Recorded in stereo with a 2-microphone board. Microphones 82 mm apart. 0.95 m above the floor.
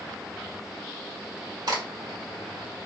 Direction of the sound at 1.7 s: 55° right (ahead or behind).